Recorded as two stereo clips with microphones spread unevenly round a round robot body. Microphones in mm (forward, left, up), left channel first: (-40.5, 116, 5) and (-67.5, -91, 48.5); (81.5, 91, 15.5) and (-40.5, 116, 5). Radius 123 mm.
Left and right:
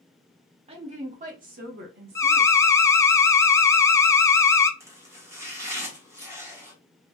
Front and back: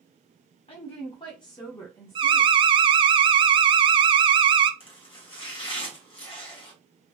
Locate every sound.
0.7 s a woman speaking: 35° right, 1.4 m; by 2.5 s 95° right, 1.4 m
2.1 s an alarm: 145° left, 0.6 m
4.8 s chopping: 10° right, 1.4 m